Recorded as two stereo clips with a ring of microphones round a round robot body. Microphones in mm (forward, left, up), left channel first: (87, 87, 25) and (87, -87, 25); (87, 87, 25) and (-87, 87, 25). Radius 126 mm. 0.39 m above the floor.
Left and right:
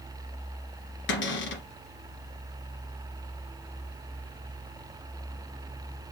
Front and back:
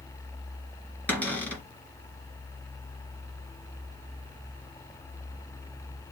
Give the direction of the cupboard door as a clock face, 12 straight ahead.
9 o'clock.